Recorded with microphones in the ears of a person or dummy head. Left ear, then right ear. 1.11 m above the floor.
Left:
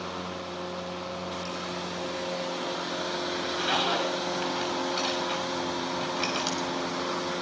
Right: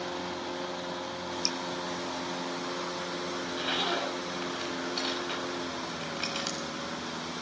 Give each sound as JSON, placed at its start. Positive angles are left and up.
{"t": 1.4, "sound": "dripping", "side_deg": -70, "distance_m": 1.7}
{"t": 3.4, "sound": "a zipper", "side_deg": 0, "distance_m": 7.0}